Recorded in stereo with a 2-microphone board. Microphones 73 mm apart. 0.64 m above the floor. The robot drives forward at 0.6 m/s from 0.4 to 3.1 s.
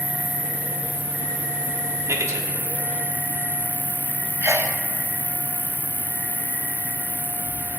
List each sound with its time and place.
0.0 s an insect: 60° left (ahead or behind), 5 m; by 7.8 s 75° left (ahead or behind), 4.5 m
2.1 s a man speaking: 45° right (ahead or behind), 1.8 m; by 2.5 s 50° right (ahead or behind), 1.7 m
4.4 s a sneeze: 40° right (ahead or behind), 1.1 m